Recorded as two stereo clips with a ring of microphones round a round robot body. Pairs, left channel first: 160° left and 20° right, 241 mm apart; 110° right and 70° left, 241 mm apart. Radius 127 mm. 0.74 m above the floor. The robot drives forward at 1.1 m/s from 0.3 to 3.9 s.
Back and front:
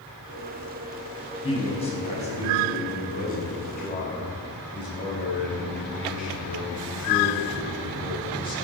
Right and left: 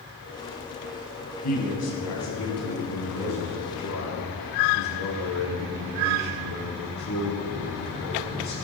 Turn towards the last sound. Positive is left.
turn(degrees=-145)